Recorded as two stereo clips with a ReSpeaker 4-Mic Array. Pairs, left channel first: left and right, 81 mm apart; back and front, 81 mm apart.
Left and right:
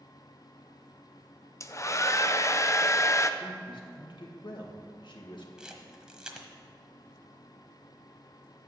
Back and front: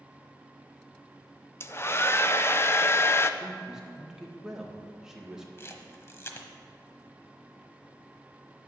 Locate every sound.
1.6 s a hair dryer: 130° left, 0.5 m
3.4 s a man speaking: 80° left, 1.8 m
5.6 s a camera shutter: 165° right, 1.2 m